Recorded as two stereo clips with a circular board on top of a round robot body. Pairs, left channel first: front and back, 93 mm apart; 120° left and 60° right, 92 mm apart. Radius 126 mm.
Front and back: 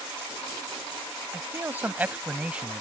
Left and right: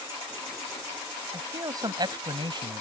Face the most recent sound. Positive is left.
turn(degrees=-100)